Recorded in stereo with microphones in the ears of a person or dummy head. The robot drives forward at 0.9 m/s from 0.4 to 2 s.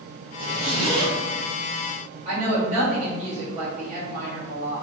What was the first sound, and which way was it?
A zipper, 45° right (ahead or behind).